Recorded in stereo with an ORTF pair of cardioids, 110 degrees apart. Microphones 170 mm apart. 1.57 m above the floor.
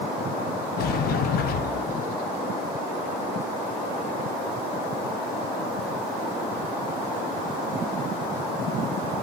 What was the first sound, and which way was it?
A sliding door, 65° left.